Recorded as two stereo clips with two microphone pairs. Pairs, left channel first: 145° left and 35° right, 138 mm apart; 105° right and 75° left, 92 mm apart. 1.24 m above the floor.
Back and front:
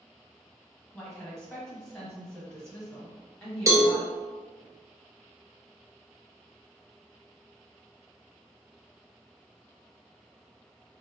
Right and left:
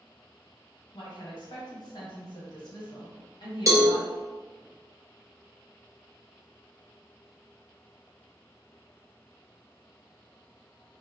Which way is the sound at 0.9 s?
130° right.